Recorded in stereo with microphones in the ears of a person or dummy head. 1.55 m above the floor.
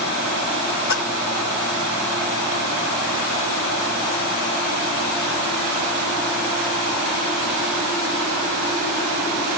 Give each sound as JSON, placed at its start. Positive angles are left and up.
{"t": 0.9, "sound": "a splash", "side_deg": 65, "distance_m": 1.6}